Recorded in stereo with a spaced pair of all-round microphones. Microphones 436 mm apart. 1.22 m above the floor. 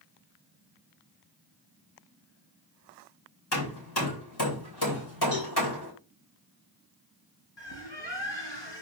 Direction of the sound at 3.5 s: 60° left (ahead or behind).